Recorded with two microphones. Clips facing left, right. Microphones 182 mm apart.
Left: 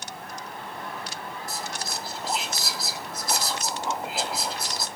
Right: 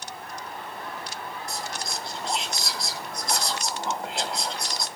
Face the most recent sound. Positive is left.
turn(degrees=5)  # may be behind; listen again after turning